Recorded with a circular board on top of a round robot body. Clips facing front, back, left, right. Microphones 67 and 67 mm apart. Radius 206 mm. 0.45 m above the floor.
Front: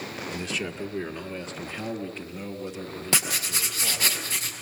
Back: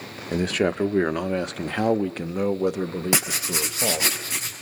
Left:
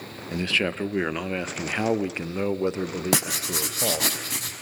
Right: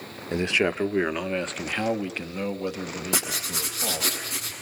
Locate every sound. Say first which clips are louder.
0.3 s a man speaking: back 12 dB, right 2 dB; 150° right, 1.2 m; by 4.1 s 145° left, 2.5 m
3.1 s writing: back 3 dB, left 4 dB; 105° left, 5.5 m